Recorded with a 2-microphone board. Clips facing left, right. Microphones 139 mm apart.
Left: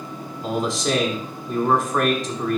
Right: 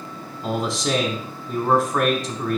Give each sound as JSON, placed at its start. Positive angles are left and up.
{"t": 0.4, "sound": "a man speaking", "side_deg": 0, "distance_m": 1.0}